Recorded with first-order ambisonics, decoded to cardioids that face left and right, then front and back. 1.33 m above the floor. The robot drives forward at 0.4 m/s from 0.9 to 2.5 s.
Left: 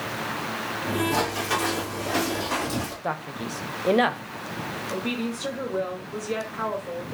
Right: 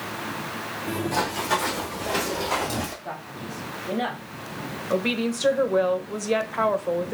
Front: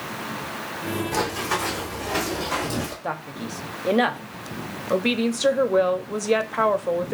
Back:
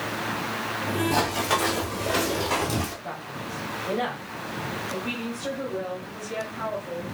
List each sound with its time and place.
1.1 s running footsteps: 170° left, 1.8 m; by 2.9 s 175° right, 1.5 m
3.0 s a man speaking: 55° left, 0.6 m
4.9 s a woman speaking: 30° right, 0.6 m